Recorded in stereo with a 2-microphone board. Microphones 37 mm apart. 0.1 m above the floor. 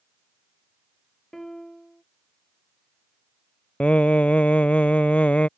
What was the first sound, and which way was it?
A piano, 10° left (ahead or behind).